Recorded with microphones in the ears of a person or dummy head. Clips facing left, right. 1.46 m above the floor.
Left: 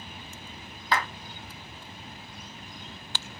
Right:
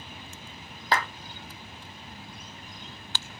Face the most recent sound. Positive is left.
turn(degrees=-30)  # may be behind; listen again after turning